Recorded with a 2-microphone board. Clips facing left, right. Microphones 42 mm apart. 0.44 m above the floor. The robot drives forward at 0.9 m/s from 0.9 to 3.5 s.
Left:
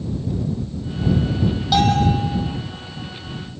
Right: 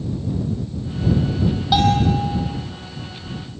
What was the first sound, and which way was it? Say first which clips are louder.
A bell: even; 15° right (ahead or behind).